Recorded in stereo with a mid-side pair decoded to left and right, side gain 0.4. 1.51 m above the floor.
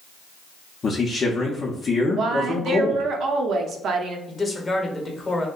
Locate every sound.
0.8 s a man speaking: 45° left, 0.6 m
2.1 s a woman speaking: 70° right, 0.5 m
4.3 s a man speaking: 35° left, 1.0 m